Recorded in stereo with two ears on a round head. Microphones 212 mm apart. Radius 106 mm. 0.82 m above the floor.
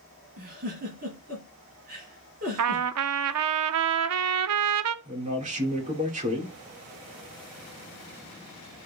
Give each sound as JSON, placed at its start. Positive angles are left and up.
{"t": 0.4, "sound": "a giggle", "side_deg": -40, "distance_m": 4.0}
{"t": 2.6, "sound": "a trumpet", "side_deg": -70, "distance_m": 0.6}
{"t": 5.0, "sound": "a man speaking", "side_deg": -30, "distance_m": 2.5}